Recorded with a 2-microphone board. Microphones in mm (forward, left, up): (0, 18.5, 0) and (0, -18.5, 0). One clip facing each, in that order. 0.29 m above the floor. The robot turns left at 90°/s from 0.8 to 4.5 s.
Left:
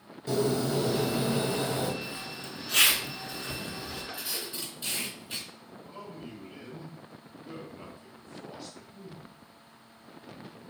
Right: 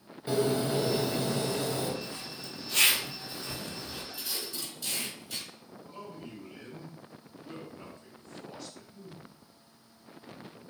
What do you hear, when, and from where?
0.3 s a bird: 155° right, 1.0 m; by 1.9 s 105° left, 1.0 m
2.0 s a zipper: 5° left (ahead or behind), 1.1 m; by 4.0 s 10° right (ahead or behind), 1.1 m
4.1 s tape being pulled: straight behind, 1.9 m; by 5.5 s 150° left, 1.9 m
5.9 s a man speaking: 15° left (ahead or behind), 1.4 m